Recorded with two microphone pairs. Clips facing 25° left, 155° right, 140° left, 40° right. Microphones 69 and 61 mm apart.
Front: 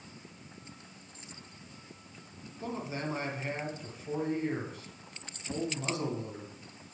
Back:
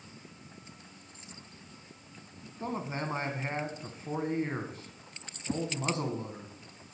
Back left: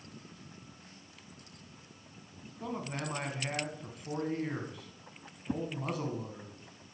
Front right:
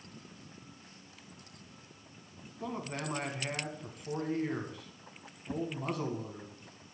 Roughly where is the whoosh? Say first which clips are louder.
Back 3 dB, back left 1 dB; behind.